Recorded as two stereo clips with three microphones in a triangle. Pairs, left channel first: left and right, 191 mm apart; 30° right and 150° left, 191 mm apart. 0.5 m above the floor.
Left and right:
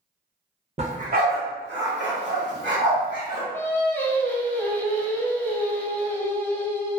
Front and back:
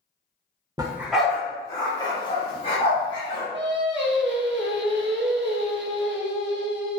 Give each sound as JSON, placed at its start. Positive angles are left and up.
{"t": 0.8, "sound": "a dog barking", "azimuth_deg": -140, "distance_m": 0.6}
{"t": 3.5, "sound": "singing", "azimuth_deg": 170, "distance_m": 0.6}